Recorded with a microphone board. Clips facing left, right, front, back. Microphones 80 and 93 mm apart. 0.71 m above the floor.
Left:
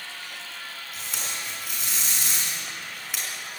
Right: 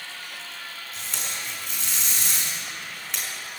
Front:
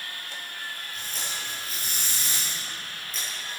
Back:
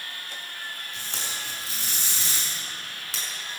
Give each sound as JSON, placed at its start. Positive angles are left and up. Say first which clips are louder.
{"t": 0.9, "sound": "tape being pulled", "louder": "even, even", "azimuth_deg": 175, "distance_m": 6.0}